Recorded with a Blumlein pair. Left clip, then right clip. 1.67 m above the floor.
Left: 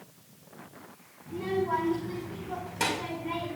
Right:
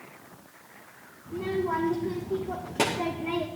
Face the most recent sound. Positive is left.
turn(degrees=-60)